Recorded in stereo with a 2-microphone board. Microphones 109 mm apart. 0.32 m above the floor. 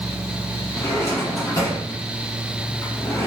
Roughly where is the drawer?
Left.